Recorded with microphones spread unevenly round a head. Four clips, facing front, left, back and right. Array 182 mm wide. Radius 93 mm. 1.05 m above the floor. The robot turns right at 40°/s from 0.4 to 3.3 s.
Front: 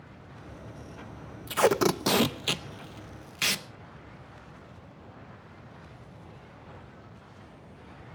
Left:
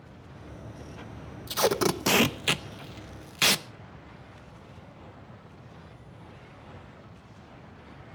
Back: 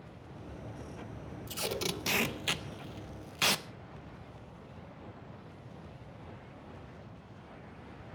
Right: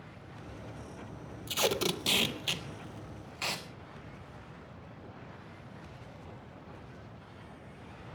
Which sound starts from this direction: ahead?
Tape being pulled, at 1.5 s.